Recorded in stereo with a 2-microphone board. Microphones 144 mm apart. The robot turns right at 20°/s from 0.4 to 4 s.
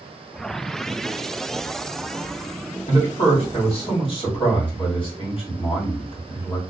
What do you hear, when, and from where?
2.9 s a man speaking: 50° left (ahead or behind), 1.8 m; by 6.6 s 40° left (ahead or behind), 1.8 m